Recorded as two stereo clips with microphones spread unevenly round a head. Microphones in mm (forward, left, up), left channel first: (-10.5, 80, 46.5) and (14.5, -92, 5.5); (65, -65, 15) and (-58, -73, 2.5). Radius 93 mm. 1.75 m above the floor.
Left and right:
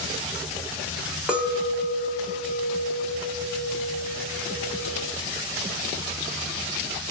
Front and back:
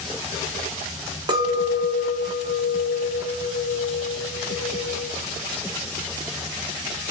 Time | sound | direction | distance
1.3 | a clink | 175° left | 0.6 m